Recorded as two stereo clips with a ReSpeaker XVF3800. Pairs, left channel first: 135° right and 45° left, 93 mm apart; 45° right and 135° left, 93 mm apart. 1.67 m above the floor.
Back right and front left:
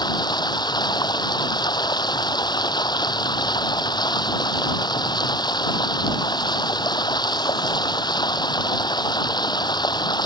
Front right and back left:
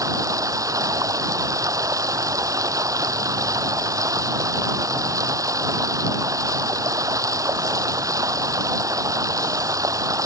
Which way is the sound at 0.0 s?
175° right.